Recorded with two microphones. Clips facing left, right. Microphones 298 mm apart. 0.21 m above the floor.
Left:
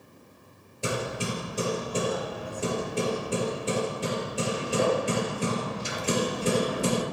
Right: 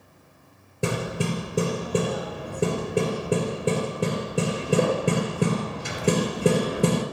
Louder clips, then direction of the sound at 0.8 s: Right 4 dB; 65° right (ahead or behind).